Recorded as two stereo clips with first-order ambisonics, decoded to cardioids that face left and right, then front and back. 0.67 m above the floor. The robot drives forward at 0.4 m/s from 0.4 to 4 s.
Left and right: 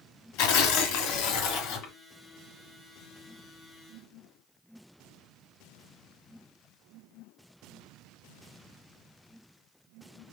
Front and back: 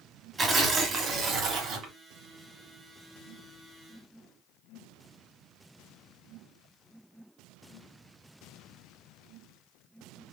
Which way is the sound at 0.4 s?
105° left.